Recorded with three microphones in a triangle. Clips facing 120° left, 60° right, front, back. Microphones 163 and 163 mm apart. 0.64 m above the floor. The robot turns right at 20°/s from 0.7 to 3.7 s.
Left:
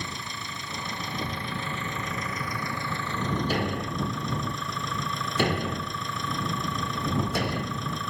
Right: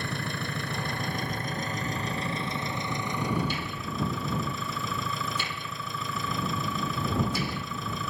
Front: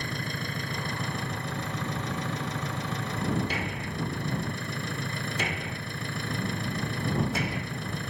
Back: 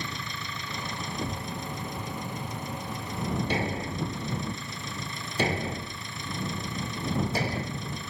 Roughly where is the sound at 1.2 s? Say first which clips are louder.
Even, back 1 dB; behind.